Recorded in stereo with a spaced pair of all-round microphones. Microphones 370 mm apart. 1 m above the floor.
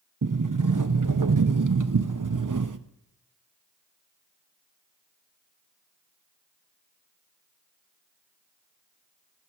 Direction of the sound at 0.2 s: 50° right (ahead or behind).